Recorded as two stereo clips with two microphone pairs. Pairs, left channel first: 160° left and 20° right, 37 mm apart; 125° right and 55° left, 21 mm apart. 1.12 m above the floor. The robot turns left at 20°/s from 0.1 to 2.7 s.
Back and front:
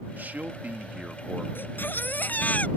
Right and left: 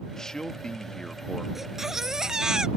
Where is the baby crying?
135° left; by 2.7 s 115° left.